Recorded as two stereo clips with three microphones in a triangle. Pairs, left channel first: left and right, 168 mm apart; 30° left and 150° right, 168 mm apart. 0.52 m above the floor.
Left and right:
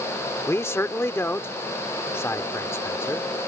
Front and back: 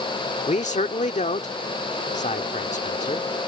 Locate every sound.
0.5 s a man speaking: 20° left